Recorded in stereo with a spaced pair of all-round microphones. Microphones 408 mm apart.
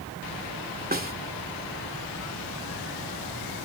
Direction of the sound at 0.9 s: 20° right (ahead or behind).